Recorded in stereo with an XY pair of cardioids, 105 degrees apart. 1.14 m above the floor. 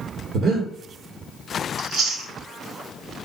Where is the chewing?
60° right, 1.2 m.